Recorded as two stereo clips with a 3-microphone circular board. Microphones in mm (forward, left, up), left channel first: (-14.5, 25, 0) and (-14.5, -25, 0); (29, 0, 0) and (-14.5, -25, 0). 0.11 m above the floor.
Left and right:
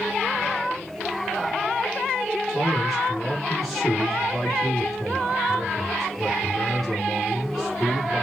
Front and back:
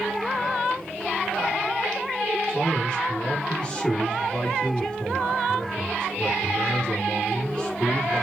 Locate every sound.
2.5 s a man speaking: 5° left, 1.3 m